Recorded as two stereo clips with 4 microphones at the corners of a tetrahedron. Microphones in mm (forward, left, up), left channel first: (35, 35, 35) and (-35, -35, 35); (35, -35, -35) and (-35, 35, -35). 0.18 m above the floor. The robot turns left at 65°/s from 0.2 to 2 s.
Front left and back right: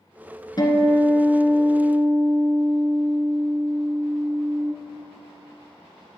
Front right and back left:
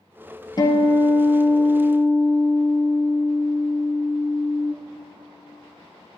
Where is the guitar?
Straight ahead, 1.3 m; by 4.7 s 90° right, 1.3 m.